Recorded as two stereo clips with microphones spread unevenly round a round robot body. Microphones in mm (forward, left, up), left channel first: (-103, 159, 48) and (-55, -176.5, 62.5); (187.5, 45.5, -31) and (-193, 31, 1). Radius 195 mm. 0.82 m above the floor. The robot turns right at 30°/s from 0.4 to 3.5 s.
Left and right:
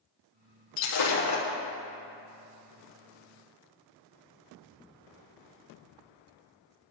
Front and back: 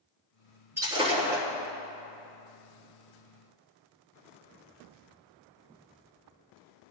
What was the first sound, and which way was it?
Breaking glass, 100° left.